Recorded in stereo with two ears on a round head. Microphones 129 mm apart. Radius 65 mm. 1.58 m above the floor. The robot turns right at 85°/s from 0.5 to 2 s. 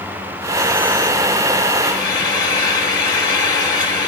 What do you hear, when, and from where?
1.8 s frying: 35° left (ahead or behind), 1.2 m; by 4.1 s 25° left (ahead or behind), 1.2 m